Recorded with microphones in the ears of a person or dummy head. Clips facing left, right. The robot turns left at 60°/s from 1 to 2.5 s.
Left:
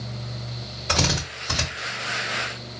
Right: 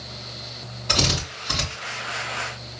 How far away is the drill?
About 3 m.